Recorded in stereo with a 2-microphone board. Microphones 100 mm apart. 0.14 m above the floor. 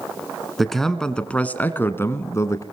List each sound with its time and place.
0.6 s a man speaking: centre (ahead or behind), 1.7 m; by 2.6 s 35° left (ahead or behind), 1.7 m